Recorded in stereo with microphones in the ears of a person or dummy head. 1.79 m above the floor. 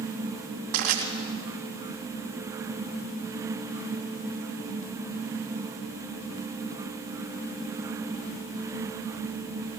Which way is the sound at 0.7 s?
45° right (ahead or behind).